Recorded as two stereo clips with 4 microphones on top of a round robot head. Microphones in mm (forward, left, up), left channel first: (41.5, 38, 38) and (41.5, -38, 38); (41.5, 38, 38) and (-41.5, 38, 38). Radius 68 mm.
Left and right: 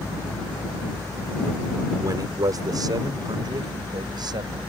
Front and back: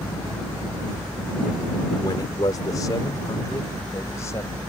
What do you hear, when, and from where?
2.0 s a man speaking: 50° right; by 4.6 s 65° right